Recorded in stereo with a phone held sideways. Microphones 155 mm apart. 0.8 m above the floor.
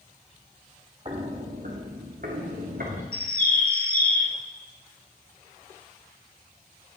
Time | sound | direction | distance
1.1 | footsteps | 35° right (ahead or behind) | 1.6 m
3.1 | a bird | 70° left (ahead or behind) | 1.2 m